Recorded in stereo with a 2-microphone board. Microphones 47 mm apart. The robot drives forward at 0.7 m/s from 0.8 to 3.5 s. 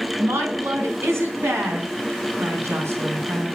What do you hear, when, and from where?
0.2 s a woman speaking: 70° right (ahead or behind), 4 m; by 3.6 s 60° right (ahead or behind), 4 m